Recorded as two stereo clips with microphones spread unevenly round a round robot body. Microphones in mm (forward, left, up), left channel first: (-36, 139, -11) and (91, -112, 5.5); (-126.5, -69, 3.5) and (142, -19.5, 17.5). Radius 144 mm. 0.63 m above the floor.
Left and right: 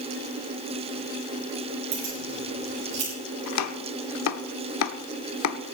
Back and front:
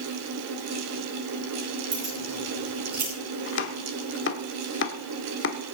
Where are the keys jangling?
40° right, 9.5 m; by 3.1 s 45° right, 9.5 m.